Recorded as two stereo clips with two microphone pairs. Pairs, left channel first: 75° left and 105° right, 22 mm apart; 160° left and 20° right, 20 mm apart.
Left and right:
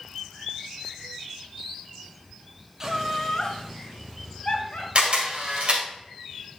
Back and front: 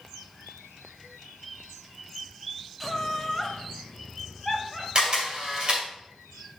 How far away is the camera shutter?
About 2 m.